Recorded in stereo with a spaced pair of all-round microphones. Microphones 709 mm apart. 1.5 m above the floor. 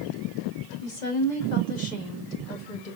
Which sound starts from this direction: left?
A woman speaking, at 0.8 s.